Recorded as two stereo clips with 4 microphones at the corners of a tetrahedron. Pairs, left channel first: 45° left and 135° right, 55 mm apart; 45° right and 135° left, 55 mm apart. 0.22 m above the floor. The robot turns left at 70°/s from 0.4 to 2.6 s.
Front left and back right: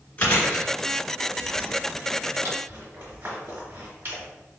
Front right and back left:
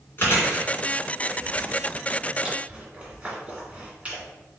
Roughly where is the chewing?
Ahead.